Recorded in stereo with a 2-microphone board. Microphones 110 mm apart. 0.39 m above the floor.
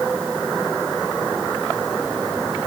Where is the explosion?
I don't hear an explosion.